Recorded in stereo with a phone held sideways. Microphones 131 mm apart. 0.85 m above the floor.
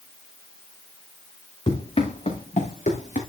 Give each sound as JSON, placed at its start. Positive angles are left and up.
{"t": 1.7, "sound": "running footsteps", "side_deg": 45, "distance_m": 4.5}